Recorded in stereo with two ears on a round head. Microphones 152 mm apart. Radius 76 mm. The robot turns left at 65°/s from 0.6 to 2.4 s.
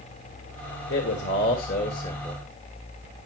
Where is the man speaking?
105° left, 2 m; by 2.4 s 5° left, 2 m.